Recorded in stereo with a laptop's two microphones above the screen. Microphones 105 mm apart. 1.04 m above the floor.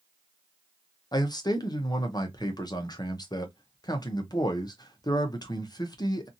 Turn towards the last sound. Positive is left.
turn(degrees=40)  # may be behind; listen again after turning